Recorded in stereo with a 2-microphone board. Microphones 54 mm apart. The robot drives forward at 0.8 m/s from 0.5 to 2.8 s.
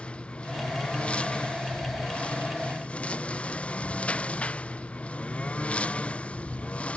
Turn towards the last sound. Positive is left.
turn(degrees=25)  # may be behind; listen again after turning